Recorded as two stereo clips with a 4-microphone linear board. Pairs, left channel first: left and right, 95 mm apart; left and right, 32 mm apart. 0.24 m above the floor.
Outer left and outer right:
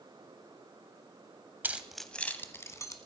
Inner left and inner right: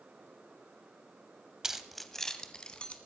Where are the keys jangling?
20° right (ahead or behind), 0.7 m; by 3.0 s 35° left (ahead or behind), 1.4 m.